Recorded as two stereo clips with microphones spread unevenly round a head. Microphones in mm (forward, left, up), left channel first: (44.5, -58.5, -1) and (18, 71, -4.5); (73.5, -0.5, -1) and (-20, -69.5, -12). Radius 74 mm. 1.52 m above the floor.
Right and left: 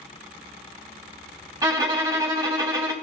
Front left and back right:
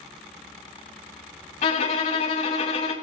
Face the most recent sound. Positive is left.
turn(degrees=40)